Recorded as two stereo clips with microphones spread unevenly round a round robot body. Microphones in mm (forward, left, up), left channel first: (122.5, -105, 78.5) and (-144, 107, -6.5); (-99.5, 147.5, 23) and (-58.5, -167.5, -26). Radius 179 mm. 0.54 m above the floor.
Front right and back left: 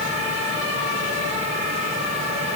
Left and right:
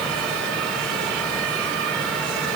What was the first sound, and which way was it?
Only background noise.